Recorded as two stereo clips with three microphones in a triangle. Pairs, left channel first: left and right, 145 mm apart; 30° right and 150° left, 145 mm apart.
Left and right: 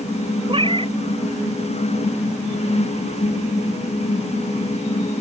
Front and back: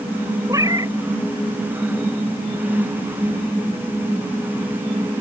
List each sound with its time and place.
0.5 s a cat meowing: 145° right